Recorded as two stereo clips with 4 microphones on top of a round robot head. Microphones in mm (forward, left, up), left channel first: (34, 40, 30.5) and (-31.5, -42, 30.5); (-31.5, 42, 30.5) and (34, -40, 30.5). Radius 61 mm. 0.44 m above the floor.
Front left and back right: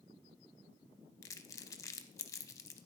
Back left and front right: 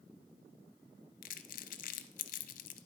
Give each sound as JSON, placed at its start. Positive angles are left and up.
{"t": 1.2, "sound": "crumpling", "azimuth_deg": 115, "distance_m": 0.6}